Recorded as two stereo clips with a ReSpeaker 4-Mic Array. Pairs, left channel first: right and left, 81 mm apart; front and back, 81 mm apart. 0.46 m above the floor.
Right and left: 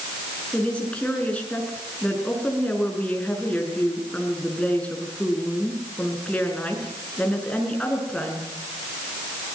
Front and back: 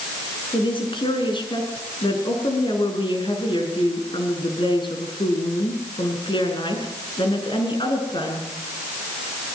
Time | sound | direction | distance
0.5 | a woman speaking | 15° right | 6 m